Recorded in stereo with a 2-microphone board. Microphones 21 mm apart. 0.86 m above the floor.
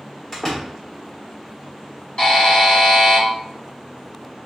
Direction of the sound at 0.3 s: 10° left (ahead or behind).